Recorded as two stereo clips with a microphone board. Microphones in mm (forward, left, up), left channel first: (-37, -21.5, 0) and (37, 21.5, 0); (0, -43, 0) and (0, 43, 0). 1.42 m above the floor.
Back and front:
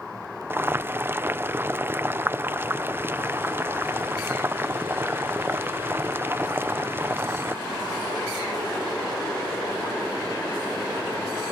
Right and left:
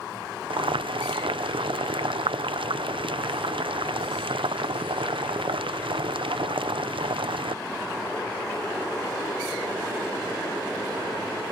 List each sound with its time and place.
0.5 s boiling: 95° left